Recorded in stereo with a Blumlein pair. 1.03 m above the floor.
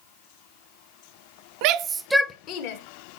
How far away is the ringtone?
No ringtone in this recording.